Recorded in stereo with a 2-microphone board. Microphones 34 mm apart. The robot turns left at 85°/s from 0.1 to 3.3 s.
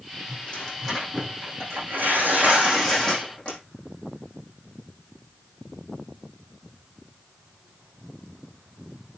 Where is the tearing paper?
45° left, 6.5 m; by 3.6 s 150° left, 6.5 m.